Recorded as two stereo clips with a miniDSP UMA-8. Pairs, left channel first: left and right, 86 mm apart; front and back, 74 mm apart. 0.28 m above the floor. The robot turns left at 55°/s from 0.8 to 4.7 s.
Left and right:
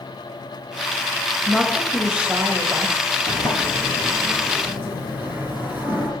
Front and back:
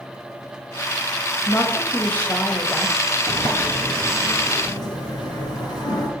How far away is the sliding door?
About 1.9 m.